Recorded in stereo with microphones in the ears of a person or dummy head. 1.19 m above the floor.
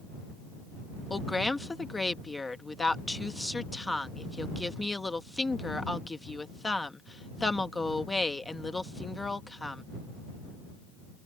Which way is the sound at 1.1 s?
5° left (ahead or behind).